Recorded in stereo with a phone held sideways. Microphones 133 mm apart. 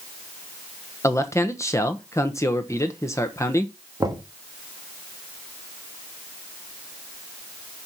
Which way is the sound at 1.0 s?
20° left (ahead or behind).